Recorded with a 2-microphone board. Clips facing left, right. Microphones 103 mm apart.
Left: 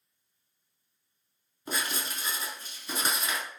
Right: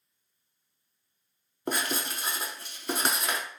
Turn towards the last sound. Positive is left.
turn(degrees=-75)  # may be behind; listen again after turning